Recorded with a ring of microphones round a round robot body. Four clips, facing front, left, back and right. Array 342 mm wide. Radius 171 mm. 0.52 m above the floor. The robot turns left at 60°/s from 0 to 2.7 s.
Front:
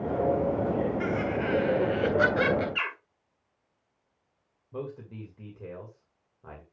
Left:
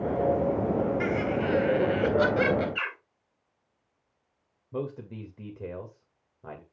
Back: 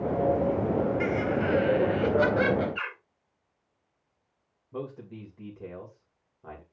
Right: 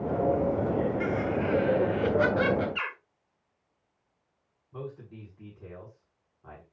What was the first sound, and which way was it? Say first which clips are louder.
Laughter: left 1 dB, back 2 dB; 140° left.